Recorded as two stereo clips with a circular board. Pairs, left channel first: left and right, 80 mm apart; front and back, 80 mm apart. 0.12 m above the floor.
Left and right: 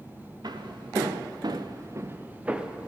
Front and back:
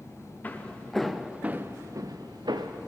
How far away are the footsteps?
About 1.4 m.